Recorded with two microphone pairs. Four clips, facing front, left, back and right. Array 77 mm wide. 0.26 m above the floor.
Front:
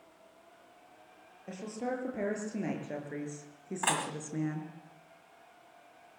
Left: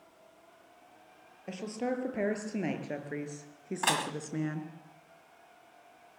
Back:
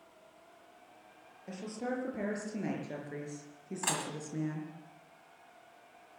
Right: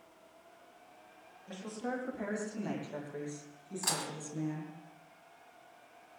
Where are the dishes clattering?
60° left, 1.4 m.